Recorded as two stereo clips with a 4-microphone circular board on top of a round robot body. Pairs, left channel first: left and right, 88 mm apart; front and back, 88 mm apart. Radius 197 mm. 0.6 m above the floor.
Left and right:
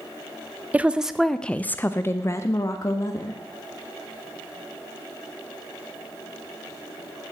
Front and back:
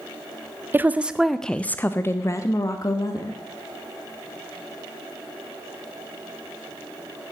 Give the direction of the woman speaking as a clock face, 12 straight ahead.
5 o'clock.